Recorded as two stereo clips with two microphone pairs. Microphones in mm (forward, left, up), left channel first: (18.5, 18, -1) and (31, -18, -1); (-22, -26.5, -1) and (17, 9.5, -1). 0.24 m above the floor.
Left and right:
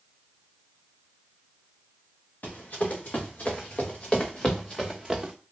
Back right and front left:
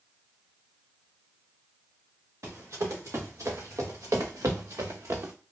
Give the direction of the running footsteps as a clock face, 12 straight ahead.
10 o'clock.